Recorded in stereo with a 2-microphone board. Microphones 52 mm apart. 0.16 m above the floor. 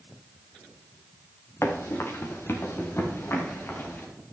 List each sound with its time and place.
1.6 s running footsteps: 65° left (ahead or behind), 2.5 m; by 4.1 s 50° left (ahead or behind), 3.5 m